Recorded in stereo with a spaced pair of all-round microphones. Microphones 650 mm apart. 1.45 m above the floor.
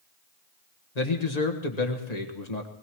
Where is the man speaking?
80° left, 1.8 m.